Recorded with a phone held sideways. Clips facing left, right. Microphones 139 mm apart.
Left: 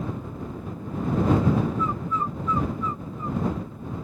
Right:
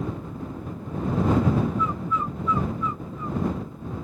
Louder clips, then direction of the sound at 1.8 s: Even; 40° left (ahead or behind).